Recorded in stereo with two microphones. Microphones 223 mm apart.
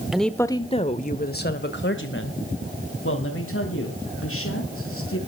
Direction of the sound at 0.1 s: Centre (ahead or behind).